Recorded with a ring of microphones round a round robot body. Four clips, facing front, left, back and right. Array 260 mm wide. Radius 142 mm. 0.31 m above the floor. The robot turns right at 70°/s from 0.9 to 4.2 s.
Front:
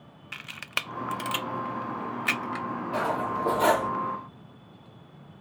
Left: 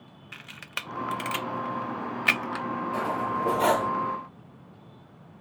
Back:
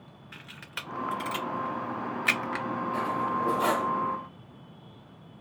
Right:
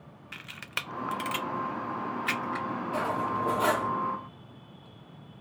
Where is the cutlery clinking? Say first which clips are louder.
Even, front 2 dB; 10° right, 0.6 m; by 3.9 s 60° left, 0.6 m.